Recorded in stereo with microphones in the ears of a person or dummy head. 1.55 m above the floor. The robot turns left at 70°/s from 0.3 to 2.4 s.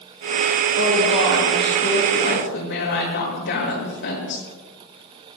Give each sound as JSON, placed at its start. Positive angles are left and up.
{"t": 0.8, "sound": "a woman speaking", "azimuth_deg": -125, "distance_m": 8.0}